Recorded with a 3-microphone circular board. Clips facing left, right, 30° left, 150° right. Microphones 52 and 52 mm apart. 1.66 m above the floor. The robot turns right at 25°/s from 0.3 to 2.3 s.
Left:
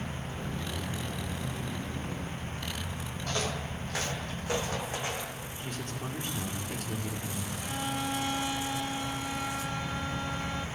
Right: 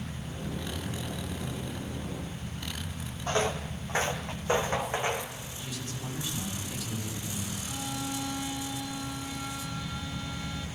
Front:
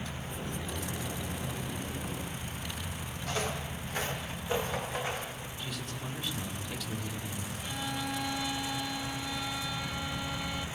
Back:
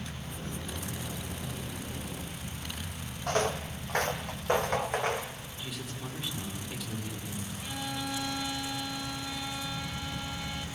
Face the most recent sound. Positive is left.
turn(degrees=120)